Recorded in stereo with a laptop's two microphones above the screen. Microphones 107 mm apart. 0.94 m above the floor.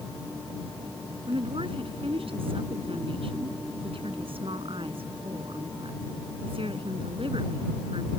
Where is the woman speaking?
60° right (ahead or behind).